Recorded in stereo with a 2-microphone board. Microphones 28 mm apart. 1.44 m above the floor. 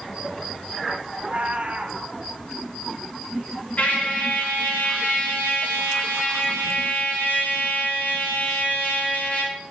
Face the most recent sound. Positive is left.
turn(degrees=65)  # may be behind; listen again after turning